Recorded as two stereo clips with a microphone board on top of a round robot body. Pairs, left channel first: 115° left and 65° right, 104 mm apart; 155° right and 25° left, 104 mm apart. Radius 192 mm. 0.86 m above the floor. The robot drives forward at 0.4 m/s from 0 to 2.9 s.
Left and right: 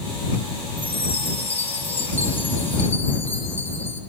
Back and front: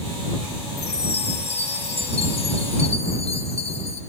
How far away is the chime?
About 5 m.